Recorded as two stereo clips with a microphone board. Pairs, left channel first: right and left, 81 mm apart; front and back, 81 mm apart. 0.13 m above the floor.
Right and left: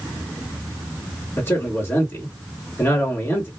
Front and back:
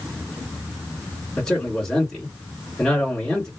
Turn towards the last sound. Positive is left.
turn(degrees=-75)